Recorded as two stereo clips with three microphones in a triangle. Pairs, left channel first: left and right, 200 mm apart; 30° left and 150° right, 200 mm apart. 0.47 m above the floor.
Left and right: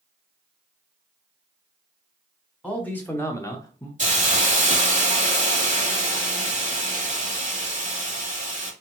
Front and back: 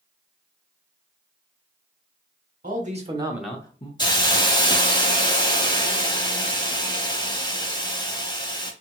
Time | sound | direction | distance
2.6 | a man speaking | 175° left | 1.3 m
4.0 | a hiss | 40° right | 1.0 m